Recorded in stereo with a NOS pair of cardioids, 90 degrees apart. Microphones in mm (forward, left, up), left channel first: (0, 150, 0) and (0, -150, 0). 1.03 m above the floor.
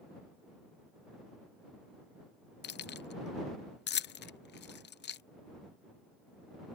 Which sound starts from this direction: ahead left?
Keys jangling, at 2.6 s.